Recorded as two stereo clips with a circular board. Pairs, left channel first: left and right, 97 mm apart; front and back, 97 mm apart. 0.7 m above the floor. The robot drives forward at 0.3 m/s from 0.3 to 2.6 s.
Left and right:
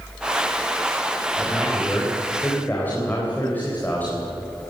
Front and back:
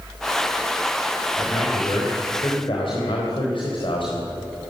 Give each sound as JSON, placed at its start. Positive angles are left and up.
{"t": 1.4, "sound": "a man speaking", "azimuth_deg": 20, "distance_m": 4.0}